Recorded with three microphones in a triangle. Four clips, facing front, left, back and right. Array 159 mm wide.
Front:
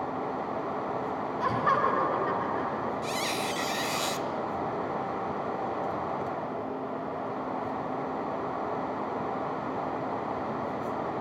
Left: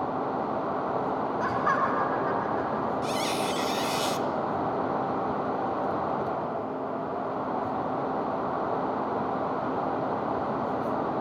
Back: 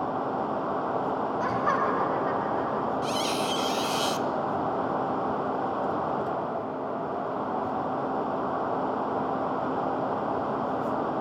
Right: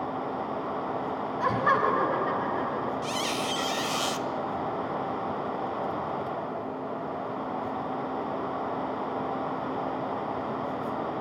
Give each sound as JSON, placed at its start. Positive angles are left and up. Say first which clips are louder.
{"t": 1.4, "sound": "laughter", "louder": "right 3 dB, front 2 dB", "azimuth_deg": -60, "distance_m": 8.5}
{"t": 3.0, "sound": "a squeak", "louder": "left 2 dB, back 4 dB", "azimuth_deg": -75, "distance_m": 1.2}